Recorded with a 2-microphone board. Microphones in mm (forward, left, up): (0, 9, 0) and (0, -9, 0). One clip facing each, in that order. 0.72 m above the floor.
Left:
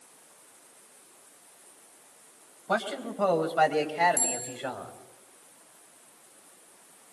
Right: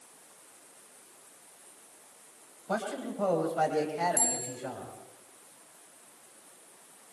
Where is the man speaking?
40° left (ahead or behind), 3.5 m; by 4.9 s 75° left (ahead or behind), 3 m.